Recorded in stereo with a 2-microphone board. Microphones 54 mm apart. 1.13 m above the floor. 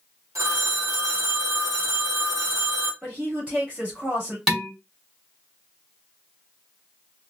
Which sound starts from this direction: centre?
Dishes clattering, at 4.5 s.